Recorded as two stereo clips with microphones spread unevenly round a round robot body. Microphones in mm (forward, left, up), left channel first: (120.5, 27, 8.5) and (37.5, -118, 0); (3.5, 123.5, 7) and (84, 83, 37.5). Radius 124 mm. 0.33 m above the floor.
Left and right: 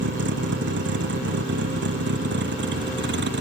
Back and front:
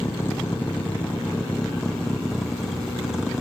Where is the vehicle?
130° right; by 3.4 s 115° right.